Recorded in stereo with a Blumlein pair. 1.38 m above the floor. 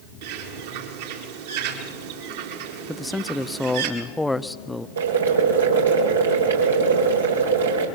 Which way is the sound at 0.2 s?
55° right.